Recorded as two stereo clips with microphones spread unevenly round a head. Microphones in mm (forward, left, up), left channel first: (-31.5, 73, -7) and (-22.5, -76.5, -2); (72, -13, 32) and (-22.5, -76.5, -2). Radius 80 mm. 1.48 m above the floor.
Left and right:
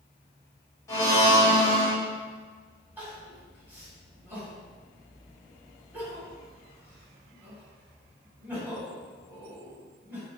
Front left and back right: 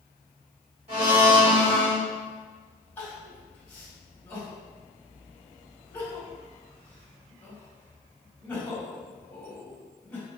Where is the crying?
15° right, 1.8 m.